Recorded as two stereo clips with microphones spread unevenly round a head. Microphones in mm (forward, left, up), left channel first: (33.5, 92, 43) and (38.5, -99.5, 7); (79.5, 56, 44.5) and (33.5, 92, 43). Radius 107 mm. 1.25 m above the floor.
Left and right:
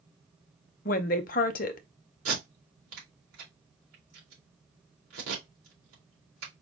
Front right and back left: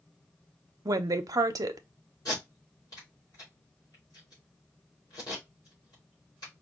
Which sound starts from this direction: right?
Tape being pulled, at 2.2 s.